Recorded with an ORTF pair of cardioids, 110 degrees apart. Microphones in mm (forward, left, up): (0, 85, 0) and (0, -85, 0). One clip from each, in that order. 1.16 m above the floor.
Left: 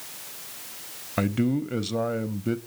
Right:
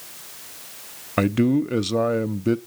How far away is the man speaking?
About 0.7 m.